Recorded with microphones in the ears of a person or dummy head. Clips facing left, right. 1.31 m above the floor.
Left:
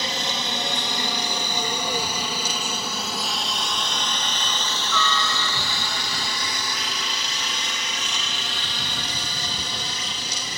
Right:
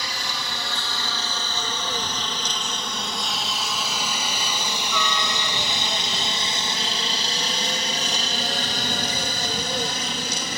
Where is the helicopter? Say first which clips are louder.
Left 4 dB; 25° left (ahead or behind); by 10.6 s 45° right (ahead or behind).